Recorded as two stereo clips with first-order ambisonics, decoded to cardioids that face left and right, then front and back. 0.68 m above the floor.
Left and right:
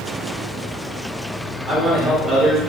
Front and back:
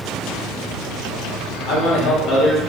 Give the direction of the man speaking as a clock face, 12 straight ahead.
12 o'clock.